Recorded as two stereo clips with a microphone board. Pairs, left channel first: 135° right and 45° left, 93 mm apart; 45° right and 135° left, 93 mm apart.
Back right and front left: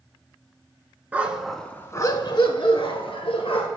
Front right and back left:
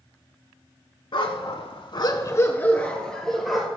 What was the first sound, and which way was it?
A dog barking, 25° right.